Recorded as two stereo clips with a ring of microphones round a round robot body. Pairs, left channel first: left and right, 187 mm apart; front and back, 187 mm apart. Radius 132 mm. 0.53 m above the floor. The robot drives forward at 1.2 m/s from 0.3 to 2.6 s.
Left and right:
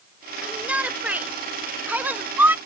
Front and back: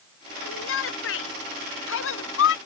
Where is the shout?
5° right; by 2.6 s 10° right.